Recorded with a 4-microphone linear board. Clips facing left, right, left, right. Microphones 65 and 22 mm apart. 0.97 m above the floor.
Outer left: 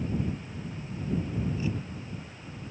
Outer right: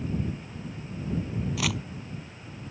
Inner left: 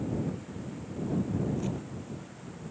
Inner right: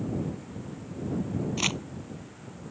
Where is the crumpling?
80° right.